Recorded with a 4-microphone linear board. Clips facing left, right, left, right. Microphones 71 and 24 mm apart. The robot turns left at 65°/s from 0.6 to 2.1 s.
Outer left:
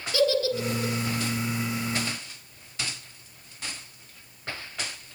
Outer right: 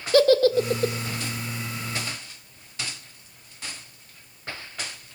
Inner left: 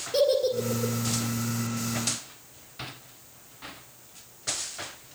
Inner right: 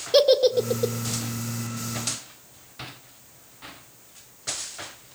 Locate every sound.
0.1 s a giggle: 50° right (ahead or behind), 1.7 m; by 0.9 s 55° right (ahead or behind), 1.7 m